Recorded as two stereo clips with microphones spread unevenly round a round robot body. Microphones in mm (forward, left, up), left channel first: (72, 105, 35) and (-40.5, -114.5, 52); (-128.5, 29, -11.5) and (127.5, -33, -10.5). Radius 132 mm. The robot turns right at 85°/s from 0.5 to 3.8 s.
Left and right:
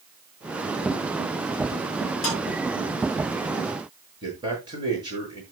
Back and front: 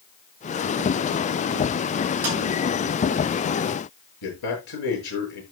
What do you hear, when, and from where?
2.2 s a snare drum: 25° left, 9.5 m; by 2.4 s 35° left, 9.5 m
4.2 s a man speaking: 170° left, 7.5 m